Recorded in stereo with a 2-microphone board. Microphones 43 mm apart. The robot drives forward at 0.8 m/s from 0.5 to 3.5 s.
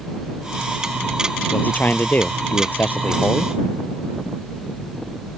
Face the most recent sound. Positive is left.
turn(degrees=45)  # may be behind; listen again after turning